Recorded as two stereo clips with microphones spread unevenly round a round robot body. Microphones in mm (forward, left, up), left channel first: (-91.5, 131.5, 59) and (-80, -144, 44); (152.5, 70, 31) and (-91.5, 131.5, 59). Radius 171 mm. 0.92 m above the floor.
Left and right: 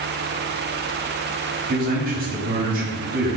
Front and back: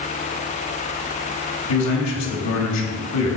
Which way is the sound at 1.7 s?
25° right.